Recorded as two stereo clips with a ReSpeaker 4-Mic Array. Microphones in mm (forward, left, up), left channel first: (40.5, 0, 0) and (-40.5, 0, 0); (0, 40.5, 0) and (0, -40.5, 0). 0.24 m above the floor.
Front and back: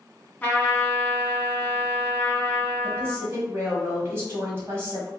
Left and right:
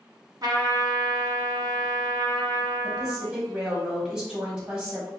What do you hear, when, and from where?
0.4 s a trumpet: 65° right, 0.8 m
2.8 s a woman speaking: 160° right, 1.3 m